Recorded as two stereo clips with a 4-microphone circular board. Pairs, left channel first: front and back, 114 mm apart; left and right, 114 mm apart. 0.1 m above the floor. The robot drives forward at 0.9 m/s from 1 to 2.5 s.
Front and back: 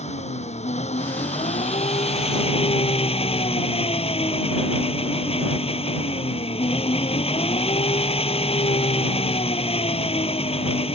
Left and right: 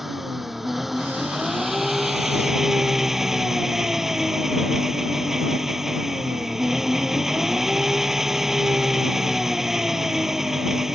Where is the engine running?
Straight ahead; by 11.0 s 5° right.